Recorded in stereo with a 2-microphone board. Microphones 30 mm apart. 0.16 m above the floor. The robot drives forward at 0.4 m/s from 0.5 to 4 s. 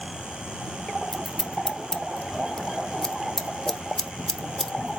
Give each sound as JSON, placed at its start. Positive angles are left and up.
{"t": 1.1, "sound": "scissors", "side_deg": 15, "distance_m": 0.7}